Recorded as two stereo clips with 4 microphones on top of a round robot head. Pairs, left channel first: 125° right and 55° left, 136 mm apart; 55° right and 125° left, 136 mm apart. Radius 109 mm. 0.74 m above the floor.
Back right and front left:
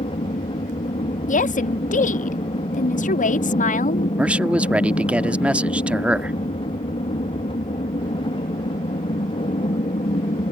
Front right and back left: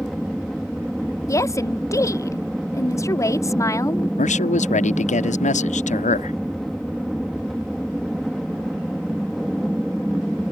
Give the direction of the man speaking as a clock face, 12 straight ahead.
1 o'clock.